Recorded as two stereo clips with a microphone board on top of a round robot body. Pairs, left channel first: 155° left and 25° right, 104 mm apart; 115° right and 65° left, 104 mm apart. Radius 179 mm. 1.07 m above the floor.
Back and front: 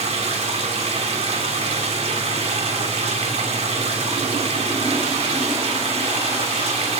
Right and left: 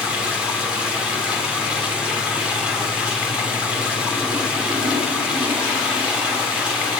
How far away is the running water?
About 7 m.